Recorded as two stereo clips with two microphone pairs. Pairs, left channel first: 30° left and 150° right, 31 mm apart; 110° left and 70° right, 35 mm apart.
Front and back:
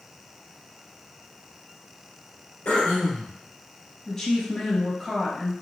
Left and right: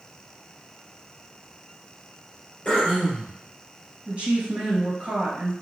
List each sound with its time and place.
2.6 s throat clearing: 50° left, 2.5 m
4.1 s a woman speaking: 35° right, 2 m